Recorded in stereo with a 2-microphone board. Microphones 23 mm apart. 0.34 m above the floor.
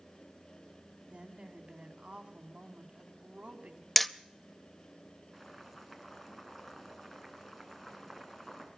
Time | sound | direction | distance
1.1 | a woman speaking | 60° right (ahead or behind) | 2.5 m
4.0 | hammering | 5° left (ahead or behind) | 0.5 m
5.3 | boiling | 5° left (ahead or behind) | 3.5 m